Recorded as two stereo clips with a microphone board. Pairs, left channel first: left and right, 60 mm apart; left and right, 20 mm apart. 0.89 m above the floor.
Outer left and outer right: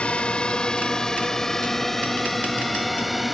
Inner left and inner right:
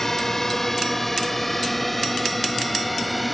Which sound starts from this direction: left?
A drone, at 0.0 s.